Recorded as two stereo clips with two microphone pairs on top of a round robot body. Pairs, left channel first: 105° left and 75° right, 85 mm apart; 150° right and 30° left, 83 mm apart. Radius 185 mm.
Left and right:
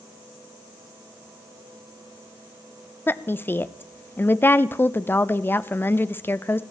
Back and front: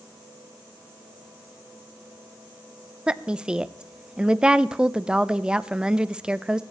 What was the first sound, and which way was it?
A woman speaking, 100° left.